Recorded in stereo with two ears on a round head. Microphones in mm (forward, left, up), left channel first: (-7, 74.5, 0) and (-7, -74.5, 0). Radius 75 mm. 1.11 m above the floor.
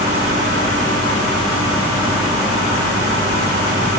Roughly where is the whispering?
No whispering in this recording.